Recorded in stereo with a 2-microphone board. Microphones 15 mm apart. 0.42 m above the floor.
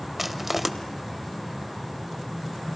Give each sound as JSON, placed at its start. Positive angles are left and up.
{"t": 0.2, "sound": "crushing", "side_deg": -10, "distance_m": 1.2}